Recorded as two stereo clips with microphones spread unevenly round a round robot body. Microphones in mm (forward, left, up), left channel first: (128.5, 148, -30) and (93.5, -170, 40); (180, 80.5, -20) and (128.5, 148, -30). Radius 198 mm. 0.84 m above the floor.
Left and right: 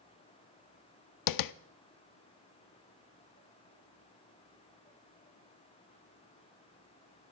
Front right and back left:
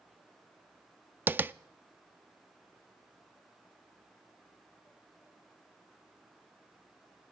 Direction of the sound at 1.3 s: 55° left.